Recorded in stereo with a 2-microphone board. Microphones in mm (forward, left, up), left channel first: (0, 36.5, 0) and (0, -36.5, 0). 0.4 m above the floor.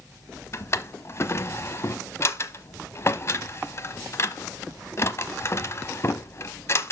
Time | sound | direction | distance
0.5 | a drawer | 40° left (ahead or behind) | 1.0 m